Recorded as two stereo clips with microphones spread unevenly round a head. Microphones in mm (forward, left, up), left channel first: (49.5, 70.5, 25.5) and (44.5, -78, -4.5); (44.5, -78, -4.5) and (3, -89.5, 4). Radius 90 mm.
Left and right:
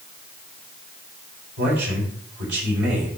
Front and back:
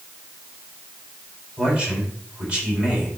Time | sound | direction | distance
1.6 | a man speaking | 100° right | 3.5 m